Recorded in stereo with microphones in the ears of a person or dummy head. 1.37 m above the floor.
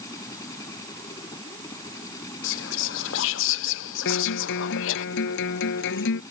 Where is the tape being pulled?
I don't hear tape being pulled.